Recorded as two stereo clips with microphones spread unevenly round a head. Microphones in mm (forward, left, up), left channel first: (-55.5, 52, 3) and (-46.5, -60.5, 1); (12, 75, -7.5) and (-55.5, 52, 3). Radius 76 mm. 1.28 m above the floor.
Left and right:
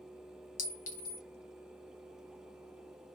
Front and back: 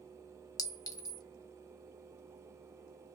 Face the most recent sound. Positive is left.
turn(degrees=60)